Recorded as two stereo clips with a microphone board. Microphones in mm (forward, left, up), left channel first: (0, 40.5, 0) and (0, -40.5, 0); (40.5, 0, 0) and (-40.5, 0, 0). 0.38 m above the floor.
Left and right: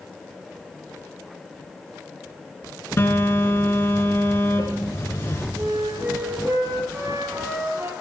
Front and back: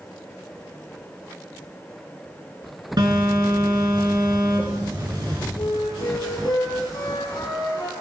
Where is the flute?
35° right, 3.5 m.